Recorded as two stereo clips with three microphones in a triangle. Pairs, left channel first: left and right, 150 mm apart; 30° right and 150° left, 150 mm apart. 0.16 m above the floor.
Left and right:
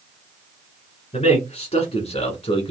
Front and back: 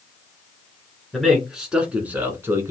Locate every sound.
1.1 s a man speaking: 60° left, 1.8 m; by 2.7 s 95° left, 1.4 m